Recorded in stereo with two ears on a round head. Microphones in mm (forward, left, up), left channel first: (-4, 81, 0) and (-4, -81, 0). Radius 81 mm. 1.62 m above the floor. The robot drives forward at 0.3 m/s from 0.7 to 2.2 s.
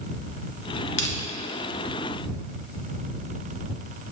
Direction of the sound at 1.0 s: 65° left (ahead or behind).